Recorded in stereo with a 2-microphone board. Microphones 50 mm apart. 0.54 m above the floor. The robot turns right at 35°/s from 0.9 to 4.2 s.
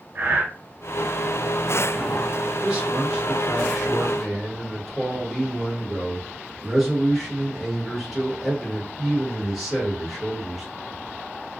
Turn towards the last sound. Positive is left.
turn(degrees=5)  # may be behind; listen again after turning